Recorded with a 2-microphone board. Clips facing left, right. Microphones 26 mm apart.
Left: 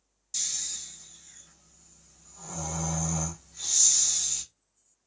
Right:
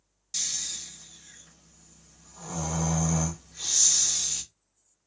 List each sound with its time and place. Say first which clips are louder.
0.3 s snoring: right 2 dB; 30° right (ahead or behind), 0.6 m